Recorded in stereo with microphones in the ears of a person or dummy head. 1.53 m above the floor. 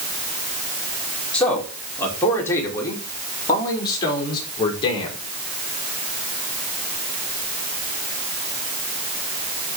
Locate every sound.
1.3 s a man speaking: 5° left (ahead or behind), 5 m; by 5.2 s 30° left (ahead or behind), 5.5 m